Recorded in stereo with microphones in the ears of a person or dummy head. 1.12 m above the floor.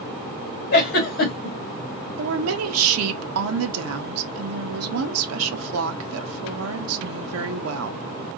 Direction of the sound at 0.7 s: 45° left (ahead or behind).